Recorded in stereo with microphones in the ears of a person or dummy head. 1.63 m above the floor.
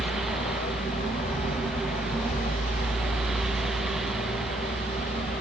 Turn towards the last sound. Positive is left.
turn(degrees=45)  # may be behind; listen again after turning